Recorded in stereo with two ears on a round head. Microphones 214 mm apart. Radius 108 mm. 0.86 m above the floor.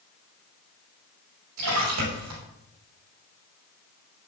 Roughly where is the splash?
Right.